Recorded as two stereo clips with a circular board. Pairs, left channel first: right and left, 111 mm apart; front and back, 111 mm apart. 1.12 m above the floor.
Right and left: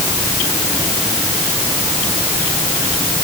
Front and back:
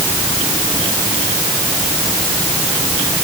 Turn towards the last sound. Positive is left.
No sound to turn to.